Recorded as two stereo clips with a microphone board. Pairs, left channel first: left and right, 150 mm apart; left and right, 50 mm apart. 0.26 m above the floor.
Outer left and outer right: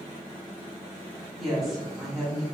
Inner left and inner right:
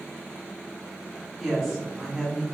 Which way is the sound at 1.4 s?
Centre (ahead or behind).